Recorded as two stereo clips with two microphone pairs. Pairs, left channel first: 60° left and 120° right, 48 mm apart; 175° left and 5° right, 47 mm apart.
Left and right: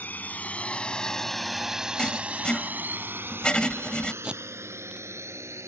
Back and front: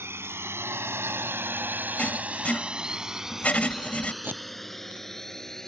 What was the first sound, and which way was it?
A drone, 10° left.